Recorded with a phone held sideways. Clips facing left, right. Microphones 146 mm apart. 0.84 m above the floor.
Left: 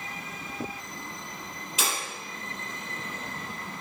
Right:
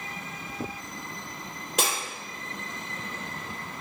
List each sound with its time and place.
1.8 s breaking glass: 60° right (ahead or behind), 3 m